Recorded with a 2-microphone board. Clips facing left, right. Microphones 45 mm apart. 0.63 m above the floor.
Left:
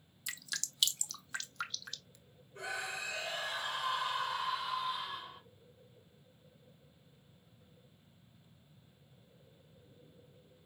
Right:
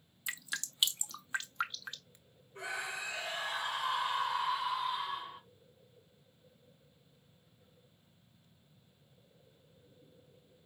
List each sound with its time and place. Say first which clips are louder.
0.3 s dripping: right 3 dB; 25° right (ahead or behind), 0.5 m
2.5 s a scream: right 1 dB; 20° right (ahead or behind), 3 m